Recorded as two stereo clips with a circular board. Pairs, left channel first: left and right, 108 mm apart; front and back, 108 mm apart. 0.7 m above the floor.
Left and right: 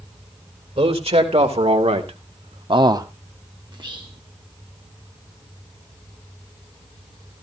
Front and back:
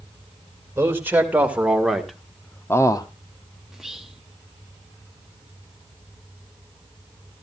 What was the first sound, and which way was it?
A man speaking, 110° right.